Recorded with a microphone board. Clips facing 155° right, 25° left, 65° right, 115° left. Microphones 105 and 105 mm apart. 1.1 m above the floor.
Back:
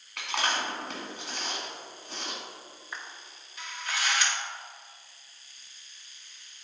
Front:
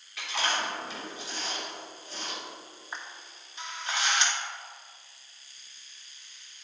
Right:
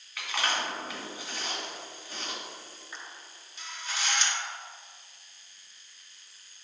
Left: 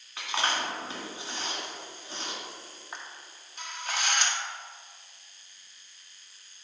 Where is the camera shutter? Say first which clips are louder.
Front 1 dB, left 3 dB; 85° left, 0.9 m.